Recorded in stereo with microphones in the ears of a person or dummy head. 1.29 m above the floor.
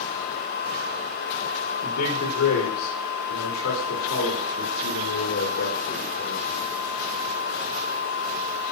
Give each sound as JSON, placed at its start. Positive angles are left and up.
{"t": 1.8, "sound": "a man speaking", "side_deg": 85, "distance_m": 1.5}